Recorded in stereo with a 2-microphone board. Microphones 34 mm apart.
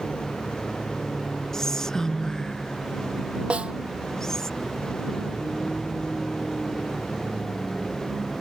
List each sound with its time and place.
0.0 s a vehicle: 20° left (ahead or behind)
1.5 s whispering: 15° left (ahead or behind)
3.5 s a snare drum: 35° right (ahead or behind)